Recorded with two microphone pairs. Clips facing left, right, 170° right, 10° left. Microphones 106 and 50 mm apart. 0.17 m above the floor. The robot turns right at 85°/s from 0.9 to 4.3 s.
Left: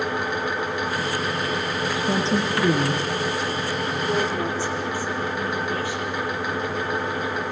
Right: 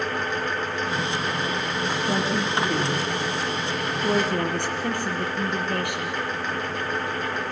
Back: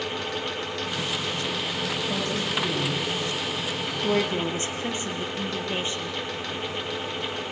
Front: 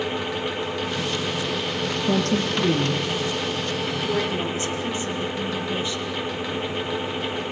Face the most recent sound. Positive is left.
turn(degrees=-115)